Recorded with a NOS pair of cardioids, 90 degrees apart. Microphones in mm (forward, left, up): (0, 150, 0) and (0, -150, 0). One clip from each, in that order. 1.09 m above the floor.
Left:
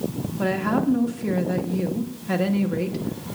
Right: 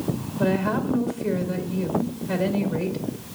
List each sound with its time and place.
0.4 s a woman speaking: 35° left, 1.5 m